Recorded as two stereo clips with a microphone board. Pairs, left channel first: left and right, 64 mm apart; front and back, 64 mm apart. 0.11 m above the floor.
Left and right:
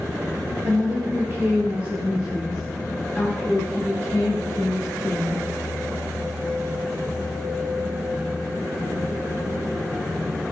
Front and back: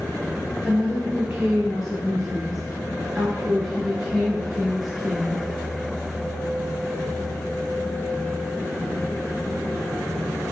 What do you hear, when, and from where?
0.6 s a woman speaking: 90° right, 1.7 m; by 5.4 s 90° left, 2.5 m